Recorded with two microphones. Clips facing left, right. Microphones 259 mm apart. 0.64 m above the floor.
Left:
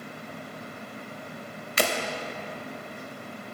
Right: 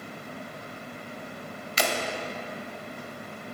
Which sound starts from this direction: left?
Breaking glass, at 1.8 s.